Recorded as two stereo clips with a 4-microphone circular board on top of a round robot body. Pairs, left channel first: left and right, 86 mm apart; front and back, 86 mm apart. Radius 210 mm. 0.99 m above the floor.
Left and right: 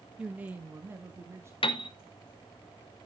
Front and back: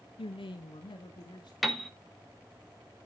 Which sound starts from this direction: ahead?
A man speaking, at 0.2 s.